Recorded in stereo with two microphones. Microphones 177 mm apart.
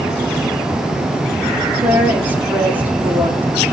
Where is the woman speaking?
10° right (ahead or behind), 1.4 m.